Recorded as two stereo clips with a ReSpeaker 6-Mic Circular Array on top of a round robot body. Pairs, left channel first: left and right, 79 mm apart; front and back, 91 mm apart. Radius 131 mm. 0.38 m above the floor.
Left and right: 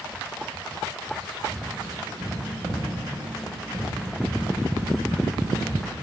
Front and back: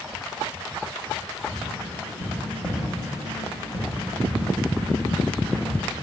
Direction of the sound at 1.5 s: 55° right.